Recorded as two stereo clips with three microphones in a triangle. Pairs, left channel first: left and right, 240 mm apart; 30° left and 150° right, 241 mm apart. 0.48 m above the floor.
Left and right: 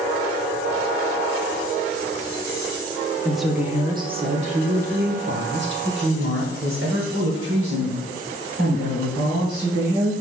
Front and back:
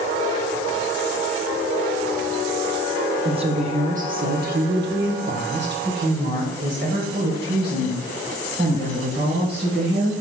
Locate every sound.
3.2 s a woman speaking: 170° left, 1.0 m; by 10.1 s 105° right, 4 m